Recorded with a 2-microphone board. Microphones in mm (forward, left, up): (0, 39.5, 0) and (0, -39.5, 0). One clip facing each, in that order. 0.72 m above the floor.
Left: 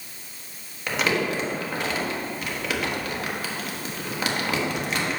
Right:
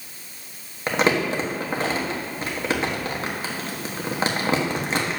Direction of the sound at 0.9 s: 30° right (ahead or behind).